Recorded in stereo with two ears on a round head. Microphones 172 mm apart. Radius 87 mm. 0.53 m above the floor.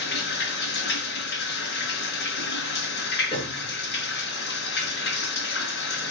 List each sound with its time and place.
0.0 s running water: 60° left (ahead or behind), 4.5 m
3.3 s a piano: 30° left (ahead or behind), 6 m